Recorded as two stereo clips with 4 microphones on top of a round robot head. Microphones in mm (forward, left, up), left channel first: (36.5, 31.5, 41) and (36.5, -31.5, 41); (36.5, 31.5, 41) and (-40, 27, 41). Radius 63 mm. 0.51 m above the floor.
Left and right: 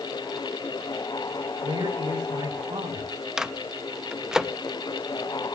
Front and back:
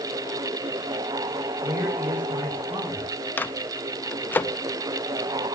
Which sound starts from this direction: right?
A man speaking, at 1.6 s.